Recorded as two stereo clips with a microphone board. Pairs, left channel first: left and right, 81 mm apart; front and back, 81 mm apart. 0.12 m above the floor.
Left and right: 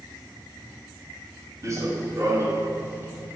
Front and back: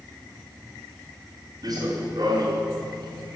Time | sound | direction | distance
1.6 | running footsteps | 140° right | 2.5 m